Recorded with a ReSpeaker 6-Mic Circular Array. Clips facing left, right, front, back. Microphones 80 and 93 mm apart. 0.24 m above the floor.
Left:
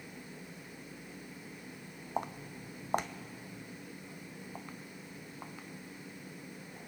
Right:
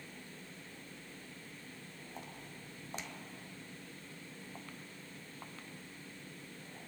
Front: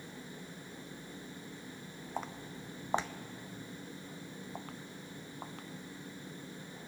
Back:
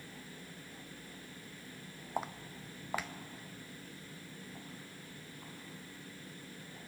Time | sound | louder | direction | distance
2.2 | footsteps | left 14 dB, back 2 dB | 100° left | 0.6 m